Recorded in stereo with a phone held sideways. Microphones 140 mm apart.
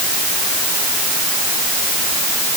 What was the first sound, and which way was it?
Only background noise.